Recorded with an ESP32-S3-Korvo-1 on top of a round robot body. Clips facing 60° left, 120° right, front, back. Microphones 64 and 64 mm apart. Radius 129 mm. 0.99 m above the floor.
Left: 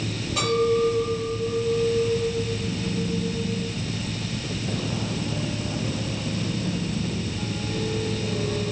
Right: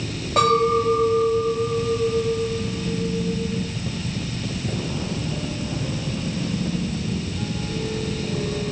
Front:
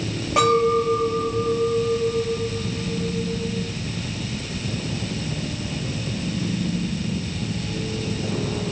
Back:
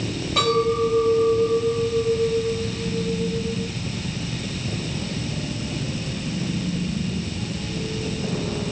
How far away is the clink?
About 3.5 m.